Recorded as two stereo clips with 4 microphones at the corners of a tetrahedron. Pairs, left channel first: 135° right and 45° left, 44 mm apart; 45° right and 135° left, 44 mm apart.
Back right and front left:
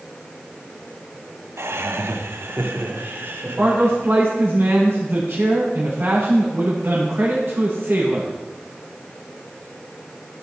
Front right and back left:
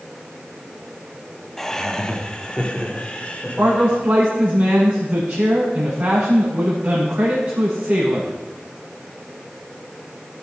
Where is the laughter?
35° left, 1.1 m; by 4.0 s 15° left, 3 m.